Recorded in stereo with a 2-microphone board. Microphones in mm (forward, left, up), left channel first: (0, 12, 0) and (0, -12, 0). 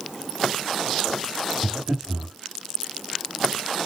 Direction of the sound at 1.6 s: 85° right.